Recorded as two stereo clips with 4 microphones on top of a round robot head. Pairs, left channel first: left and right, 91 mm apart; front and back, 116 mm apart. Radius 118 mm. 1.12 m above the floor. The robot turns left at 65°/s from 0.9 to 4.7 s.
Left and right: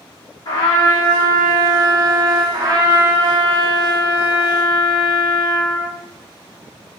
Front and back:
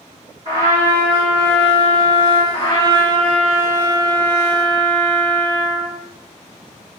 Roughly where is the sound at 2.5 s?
Ahead right.